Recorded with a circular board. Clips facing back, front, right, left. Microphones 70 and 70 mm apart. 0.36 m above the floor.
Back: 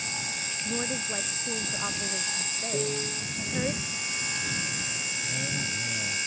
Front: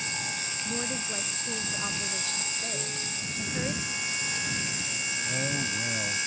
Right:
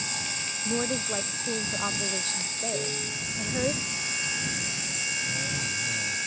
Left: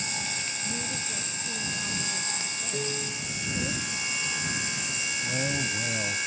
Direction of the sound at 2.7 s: 175° left.